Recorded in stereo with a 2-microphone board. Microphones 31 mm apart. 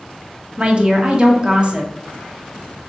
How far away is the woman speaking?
About 0.7 m.